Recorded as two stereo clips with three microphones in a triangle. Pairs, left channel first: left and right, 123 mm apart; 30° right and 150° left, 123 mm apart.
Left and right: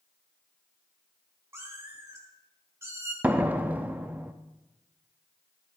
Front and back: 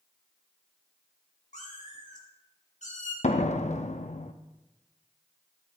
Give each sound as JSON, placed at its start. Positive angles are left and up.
{"t": 1.5, "sound": "a cat meowing", "azimuth_deg": -20, "distance_m": 2.0}
{"t": 3.2, "sound": "a door slam", "azimuth_deg": -10, "distance_m": 0.6}